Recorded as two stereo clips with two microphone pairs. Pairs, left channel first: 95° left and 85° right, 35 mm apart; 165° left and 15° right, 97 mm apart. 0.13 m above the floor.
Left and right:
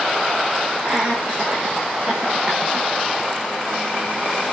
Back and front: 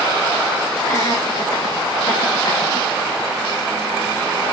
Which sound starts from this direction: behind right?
Laughter, at 0.8 s.